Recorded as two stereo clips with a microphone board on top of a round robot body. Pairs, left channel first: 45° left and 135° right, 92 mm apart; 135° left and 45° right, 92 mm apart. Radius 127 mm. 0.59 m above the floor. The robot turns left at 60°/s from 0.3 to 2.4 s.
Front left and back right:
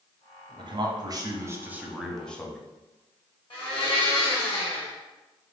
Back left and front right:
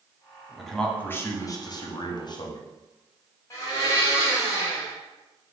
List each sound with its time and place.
0.6 s a man speaking: 135° right, 0.9 m; by 2.6 s 120° left, 0.9 m
3.5 s a blender: 75° left, 1.8 m